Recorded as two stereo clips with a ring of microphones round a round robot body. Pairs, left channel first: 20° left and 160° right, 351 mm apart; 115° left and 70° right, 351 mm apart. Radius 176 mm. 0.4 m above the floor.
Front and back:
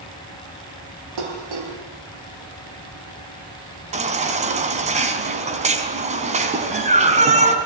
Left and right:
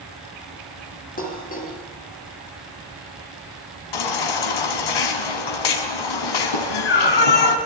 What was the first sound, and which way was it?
Dishes clattering, straight behind.